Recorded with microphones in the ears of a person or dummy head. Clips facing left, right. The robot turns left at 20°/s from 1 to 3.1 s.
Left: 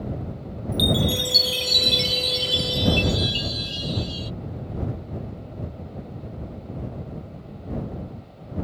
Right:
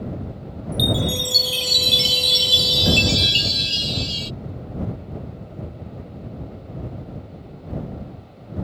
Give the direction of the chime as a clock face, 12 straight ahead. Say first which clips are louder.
Even; 12 o'clock.